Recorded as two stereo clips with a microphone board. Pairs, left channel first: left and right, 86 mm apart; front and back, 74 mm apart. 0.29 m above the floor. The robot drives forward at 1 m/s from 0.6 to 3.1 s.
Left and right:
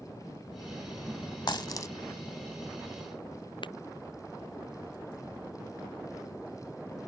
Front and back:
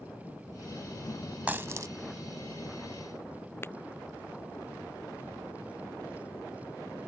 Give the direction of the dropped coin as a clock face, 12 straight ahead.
8 o'clock.